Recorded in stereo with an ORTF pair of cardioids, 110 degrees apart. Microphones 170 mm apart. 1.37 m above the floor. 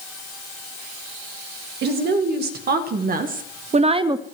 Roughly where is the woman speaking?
Right.